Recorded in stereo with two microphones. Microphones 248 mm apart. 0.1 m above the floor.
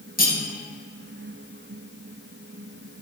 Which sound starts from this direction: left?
Cutlery clinking, at 0.2 s.